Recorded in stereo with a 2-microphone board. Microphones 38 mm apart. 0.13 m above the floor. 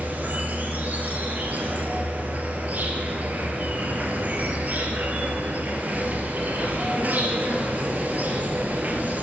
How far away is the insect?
About 1.8 m.